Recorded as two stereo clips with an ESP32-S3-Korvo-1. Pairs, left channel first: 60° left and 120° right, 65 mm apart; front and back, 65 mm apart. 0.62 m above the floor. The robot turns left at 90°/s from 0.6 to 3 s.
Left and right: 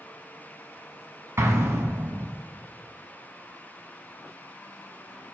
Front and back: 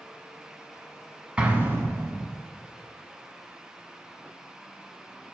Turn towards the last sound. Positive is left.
turn(degrees=105)